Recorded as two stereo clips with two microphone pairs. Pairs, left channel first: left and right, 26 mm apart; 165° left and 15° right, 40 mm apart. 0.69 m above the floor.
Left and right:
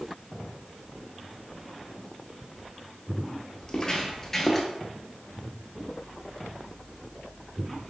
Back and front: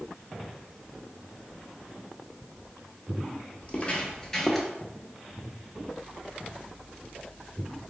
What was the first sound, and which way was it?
Footsteps, 130° left.